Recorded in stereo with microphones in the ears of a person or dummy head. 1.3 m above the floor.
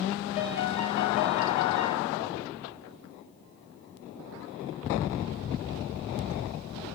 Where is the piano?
35° left (ahead or behind), 5 m.